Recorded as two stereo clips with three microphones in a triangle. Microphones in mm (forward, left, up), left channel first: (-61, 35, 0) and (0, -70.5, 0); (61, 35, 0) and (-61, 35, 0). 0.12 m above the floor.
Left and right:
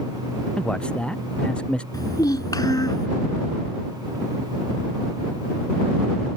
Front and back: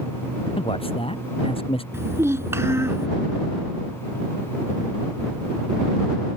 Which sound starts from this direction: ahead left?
A man speaking, at 0.6 s.